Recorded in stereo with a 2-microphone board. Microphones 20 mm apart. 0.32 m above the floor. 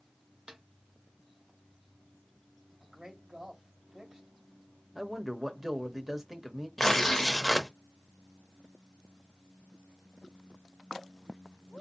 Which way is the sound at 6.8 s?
15° left (ahead or behind).